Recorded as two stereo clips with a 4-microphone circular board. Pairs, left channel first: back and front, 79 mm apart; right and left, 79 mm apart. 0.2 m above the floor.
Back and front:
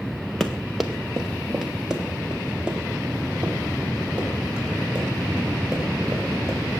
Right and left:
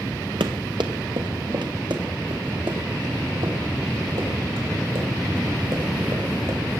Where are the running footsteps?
90° left, 1.7 m; by 6.6 s 70° left, 7 m.